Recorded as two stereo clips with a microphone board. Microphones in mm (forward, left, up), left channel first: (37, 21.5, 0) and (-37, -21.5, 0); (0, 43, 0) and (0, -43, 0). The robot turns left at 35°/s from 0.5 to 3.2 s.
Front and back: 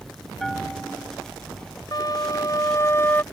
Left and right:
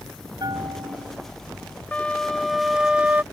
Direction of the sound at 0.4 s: 55° right.